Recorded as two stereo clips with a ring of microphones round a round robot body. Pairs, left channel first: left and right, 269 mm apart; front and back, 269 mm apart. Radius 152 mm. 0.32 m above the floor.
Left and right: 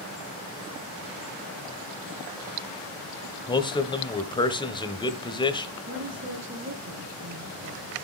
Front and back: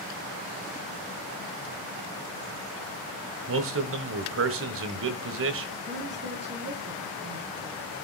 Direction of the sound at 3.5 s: 160° left.